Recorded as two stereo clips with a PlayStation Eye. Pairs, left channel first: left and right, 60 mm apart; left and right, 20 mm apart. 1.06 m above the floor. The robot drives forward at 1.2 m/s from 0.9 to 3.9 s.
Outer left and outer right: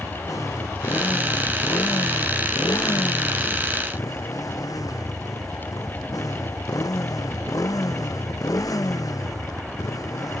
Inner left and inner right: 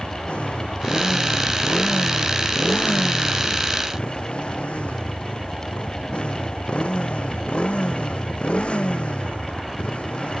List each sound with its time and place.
0.0 s a motorcycle: 70° left (ahead or behind); by 10.4 s 75° left (ahead or behind)